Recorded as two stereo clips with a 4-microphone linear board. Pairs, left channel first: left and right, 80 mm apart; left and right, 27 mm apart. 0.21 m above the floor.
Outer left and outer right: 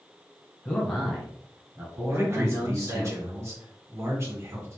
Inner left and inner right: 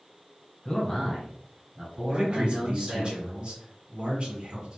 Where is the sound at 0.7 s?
15° left (ahead or behind), 1.2 m; by 3.1 s 45° right (ahead or behind), 2.5 m.